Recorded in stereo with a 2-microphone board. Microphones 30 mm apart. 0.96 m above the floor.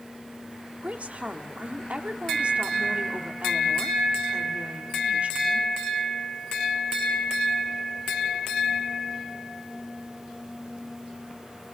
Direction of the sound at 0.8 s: 50° right (ahead or behind).